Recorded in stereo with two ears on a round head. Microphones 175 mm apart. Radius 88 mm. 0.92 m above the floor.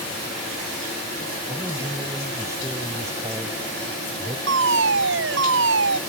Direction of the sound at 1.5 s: 15° right (ahead or behind).